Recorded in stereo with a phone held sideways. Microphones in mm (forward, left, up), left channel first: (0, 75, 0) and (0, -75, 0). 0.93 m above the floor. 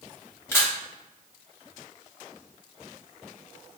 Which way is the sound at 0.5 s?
15° left (ahead or behind).